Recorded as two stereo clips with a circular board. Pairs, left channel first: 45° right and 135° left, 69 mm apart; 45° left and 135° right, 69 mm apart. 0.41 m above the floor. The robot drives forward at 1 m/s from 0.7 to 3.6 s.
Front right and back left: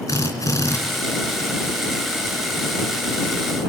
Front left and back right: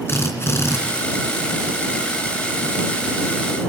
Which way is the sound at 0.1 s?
10° right.